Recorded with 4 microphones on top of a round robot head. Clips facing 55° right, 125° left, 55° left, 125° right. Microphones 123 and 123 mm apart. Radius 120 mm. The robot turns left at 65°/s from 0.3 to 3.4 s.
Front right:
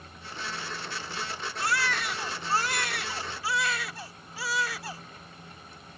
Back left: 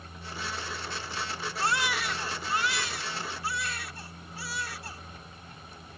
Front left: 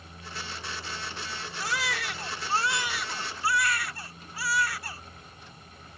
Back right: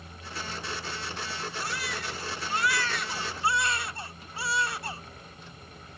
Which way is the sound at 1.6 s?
65° left.